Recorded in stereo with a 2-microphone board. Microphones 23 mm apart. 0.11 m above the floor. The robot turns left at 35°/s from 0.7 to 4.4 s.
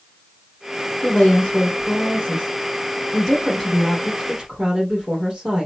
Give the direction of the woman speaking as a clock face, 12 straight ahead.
9 o'clock.